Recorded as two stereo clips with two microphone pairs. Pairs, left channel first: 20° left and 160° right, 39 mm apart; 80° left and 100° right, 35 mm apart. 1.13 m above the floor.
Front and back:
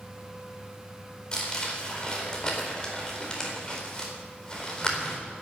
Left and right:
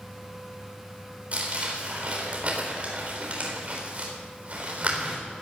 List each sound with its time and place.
1.3 s crumpling: 50° right, 3.5 m